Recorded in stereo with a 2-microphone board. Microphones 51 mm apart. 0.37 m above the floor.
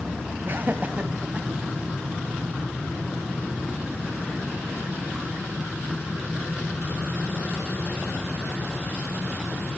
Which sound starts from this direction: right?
Laughter, at 0.5 s.